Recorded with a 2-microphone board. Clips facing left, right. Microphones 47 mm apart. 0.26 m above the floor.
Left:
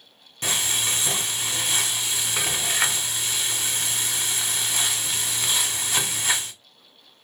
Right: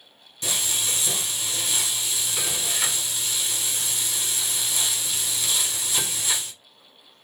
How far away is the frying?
About 0.6 m.